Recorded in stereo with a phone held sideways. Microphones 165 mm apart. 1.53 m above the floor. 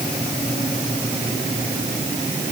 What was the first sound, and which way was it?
Only background noise.